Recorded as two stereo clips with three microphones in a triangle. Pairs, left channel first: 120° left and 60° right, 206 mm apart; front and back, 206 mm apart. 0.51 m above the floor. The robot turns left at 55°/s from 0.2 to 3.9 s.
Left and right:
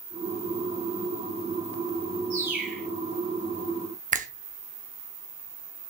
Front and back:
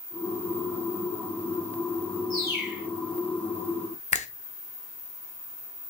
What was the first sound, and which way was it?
A bird, 130° right.